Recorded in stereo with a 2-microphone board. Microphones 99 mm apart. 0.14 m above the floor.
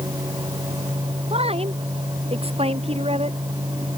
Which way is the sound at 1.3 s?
75° right (ahead or behind).